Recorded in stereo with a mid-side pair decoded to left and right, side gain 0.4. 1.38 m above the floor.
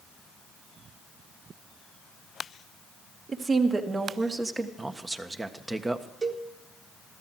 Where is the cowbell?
40° right, 1.6 m.